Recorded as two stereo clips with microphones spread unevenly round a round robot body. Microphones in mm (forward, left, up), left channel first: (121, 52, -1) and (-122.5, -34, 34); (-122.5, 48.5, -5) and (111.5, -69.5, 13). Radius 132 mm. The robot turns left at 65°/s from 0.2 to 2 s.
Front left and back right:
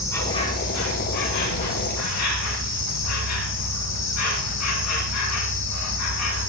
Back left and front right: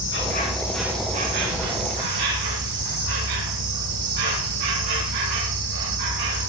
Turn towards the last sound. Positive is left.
turn(degrees=-15)